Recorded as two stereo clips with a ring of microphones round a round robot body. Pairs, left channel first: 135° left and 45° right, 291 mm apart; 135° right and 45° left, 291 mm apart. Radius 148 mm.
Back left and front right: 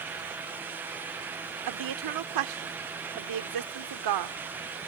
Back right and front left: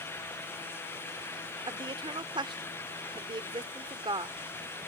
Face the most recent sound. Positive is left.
turn(degrees=-30)